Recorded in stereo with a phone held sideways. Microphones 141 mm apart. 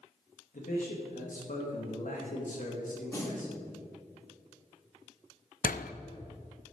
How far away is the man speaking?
About 2 m.